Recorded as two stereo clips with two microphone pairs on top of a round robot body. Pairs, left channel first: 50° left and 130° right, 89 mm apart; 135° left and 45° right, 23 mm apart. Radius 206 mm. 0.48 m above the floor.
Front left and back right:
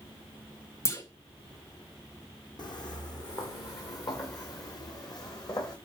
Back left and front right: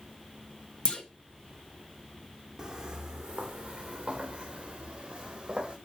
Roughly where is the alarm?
I don't hear an alarm.